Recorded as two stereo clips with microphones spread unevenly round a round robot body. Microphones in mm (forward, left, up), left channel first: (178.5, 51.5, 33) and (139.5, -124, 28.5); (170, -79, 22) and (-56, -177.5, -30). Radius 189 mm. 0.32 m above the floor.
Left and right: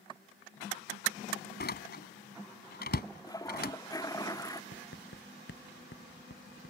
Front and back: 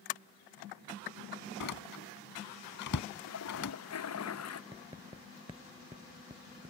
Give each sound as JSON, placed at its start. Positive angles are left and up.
{"t": 1.6, "sound": "a door slam", "azimuth_deg": 50}
{"t": 3.2, "sound": "a toilet flushing", "azimuth_deg": 5}
{"t": 4.7, "sound": "writing", "azimuth_deg": 125}